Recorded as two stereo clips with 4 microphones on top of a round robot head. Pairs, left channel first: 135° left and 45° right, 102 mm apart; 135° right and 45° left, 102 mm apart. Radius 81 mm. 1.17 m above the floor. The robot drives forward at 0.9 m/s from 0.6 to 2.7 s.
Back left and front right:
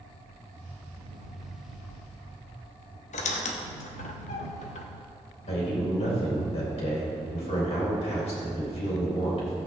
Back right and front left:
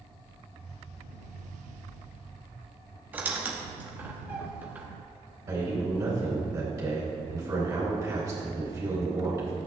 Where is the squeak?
120° left, 1.0 m.